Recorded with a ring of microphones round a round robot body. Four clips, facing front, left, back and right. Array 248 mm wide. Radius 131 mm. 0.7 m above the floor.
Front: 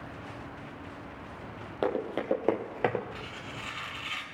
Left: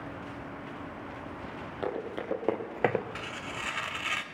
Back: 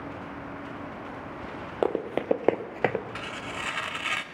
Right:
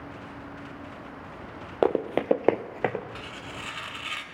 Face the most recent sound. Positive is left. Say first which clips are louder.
# left 1 dB, back 6 dB
turn(degrees=160)